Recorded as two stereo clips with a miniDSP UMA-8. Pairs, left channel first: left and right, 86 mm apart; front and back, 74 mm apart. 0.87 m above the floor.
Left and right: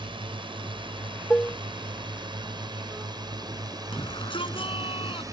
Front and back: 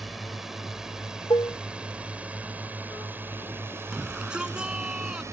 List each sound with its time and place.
0.0 s a drone: 90° right; by 5.3 s 135° right
1.3 s dishes clattering: 15° left
3.9 s a shout: 100° left